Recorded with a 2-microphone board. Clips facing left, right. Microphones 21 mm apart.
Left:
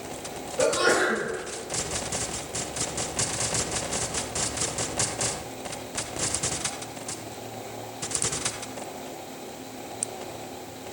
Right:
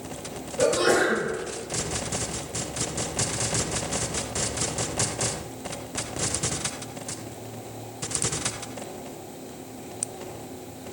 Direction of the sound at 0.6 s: 25° left (ahead or behind).